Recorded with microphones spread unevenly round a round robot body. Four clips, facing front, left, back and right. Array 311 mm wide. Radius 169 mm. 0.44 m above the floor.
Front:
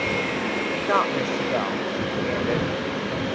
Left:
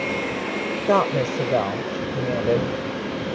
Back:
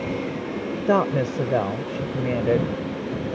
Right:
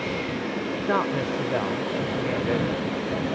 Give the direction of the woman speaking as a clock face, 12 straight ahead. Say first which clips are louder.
Left 6 dB, back 3 dB; 7 o'clock.